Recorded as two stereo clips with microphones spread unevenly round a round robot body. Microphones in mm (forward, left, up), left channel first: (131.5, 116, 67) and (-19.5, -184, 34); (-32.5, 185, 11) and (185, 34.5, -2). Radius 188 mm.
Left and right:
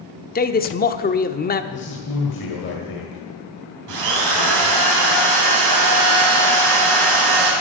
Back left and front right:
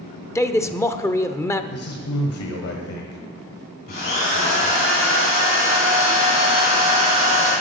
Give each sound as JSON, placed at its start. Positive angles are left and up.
{"t": 0.3, "sound": "a man speaking", "azimuth_deg": 75, "distance_m": 0.8}
{"t": 1.7, "sound": "a man speaking", "azimuth_deg": 120, "distance_m": 1.8}
{"t": 3.9, "sound": "a drill", "azimuth_deg": -150, "distance_m": 3.5}